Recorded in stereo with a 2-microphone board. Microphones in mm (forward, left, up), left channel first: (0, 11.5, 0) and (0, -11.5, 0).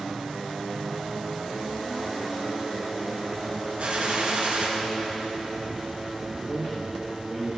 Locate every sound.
3.8 s a gunshot: 55° right (ahead or behind), 3.5 m
6.5 s a man speaking: 5° left (ahead or behind), 6 m